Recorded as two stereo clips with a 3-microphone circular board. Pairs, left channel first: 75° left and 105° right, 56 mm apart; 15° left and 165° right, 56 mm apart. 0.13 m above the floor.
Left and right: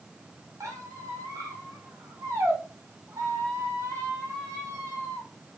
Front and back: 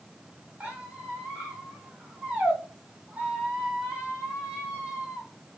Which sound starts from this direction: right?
A squeak, at 0.6 s.